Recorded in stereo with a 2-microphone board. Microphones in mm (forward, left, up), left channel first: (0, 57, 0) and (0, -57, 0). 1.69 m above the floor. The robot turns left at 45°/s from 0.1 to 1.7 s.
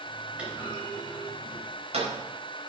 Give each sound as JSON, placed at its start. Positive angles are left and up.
{"t": 0.4, "sound": "a clunk", "side_deg": -10, "distance_m": 5.0}